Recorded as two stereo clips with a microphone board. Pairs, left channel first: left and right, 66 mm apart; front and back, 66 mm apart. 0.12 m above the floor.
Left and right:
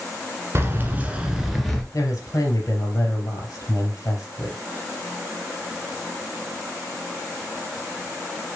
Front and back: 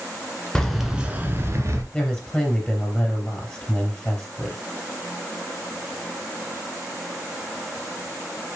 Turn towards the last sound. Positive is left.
turn(degrees=70)